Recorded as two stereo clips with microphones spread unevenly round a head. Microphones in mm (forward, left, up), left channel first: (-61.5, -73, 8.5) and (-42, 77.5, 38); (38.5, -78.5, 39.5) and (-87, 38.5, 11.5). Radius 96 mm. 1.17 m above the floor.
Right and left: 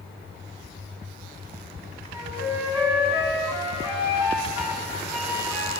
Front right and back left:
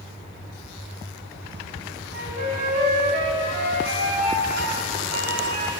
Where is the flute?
155° left, 5.5 m.